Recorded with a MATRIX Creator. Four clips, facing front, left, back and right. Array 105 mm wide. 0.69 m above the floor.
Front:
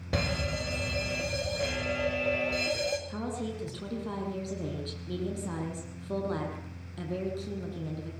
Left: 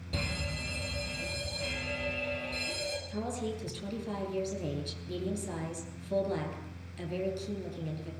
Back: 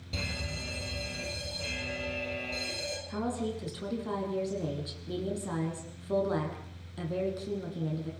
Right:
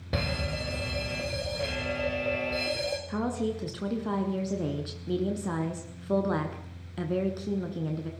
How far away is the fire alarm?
About 5 m.